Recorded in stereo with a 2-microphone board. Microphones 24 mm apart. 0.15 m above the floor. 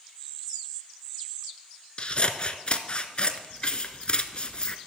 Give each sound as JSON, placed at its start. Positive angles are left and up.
{"t": 2.0, "sound": "scissors", "side_deg": 35, "distance_m": 0.6}